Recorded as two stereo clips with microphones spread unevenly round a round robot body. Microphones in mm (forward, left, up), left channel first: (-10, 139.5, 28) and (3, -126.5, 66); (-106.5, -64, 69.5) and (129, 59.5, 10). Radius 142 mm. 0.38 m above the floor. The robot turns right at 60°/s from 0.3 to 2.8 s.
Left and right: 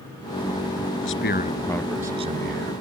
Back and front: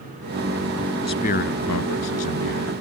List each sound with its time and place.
1.0 s a man speaking: 130° left; by 2.7 s 125° right